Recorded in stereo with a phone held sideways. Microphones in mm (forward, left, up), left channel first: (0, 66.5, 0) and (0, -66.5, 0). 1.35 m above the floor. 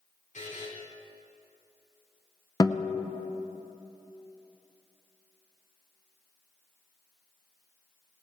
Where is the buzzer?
65° left (ahead or behind), 3.5 m.